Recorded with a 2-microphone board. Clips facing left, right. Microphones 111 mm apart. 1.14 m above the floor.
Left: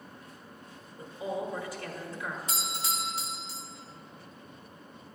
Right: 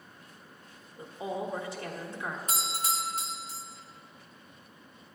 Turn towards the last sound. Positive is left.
turn(degrees=-45)  # may be behind; listen again after turning